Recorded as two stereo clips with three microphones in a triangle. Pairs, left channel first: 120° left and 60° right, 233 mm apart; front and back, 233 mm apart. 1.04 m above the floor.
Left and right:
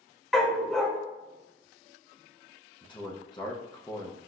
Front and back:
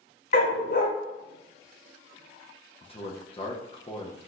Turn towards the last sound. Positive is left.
turn(degrees=60)